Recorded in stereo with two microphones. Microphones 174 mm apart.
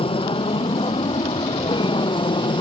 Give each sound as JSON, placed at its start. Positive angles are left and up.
{"t": 0.0, "sound": "an aircraft", "side_deg": 30}